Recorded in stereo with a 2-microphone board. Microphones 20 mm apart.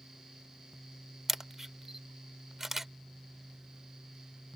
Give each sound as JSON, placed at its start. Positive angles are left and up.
{"t": 1.3, "sound": "a camera shutter", "side_deg": -20}